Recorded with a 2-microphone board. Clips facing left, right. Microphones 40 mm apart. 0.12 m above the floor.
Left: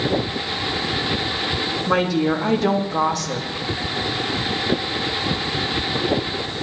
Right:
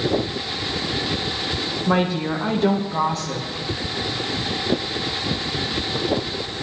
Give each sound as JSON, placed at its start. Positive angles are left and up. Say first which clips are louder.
{"t": 1.9, "sound": "a woman speaking", "louder": "left 2 dB", "side_deg": -30, "distance_m": 4.5}